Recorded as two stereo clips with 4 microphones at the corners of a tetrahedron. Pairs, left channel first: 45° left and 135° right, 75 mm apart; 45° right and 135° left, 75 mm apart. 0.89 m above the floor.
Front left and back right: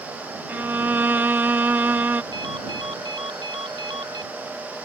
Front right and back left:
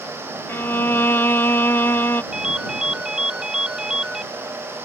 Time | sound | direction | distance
0.5 | a violin | 85° right | ?
2.3 | a ringtone | 145° right | ?